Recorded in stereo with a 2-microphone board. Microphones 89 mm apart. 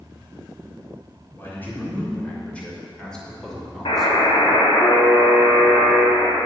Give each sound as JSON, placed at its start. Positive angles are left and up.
{"t": 1.4, "sound": "a man speaking", "side_deg": 25, "distance_m": 3.0}
{"t": 3.9, "sound": "a buzzer", "side_deg": 85, "distance_m": 1.9}